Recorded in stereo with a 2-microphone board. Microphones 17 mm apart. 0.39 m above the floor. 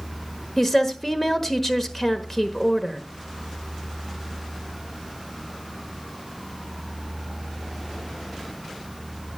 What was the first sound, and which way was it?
A woman speaking, 15° left (ahead or behind).